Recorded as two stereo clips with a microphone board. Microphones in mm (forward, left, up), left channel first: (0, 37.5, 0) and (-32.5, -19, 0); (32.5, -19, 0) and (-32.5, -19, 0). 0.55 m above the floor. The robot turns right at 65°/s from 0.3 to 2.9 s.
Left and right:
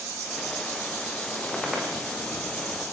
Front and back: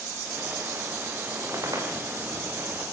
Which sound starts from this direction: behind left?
A squeak, at 1.4 s.